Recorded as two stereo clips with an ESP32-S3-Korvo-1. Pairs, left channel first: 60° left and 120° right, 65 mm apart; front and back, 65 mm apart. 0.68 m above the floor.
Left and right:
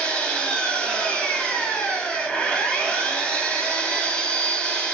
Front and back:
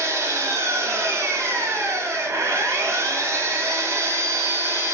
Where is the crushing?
I don't hear crushing.